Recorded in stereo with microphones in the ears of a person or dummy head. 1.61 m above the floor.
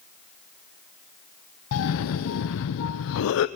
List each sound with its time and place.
1.7 s a cough: 65° left (ahead or behind), 0.7 m